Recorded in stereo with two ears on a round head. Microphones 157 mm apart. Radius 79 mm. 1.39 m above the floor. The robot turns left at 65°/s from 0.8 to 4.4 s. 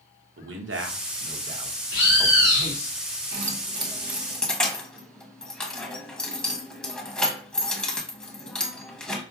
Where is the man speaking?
85° right, 0.9 m; by 2.9 s 50° left (ahead or behind), 0.9 m.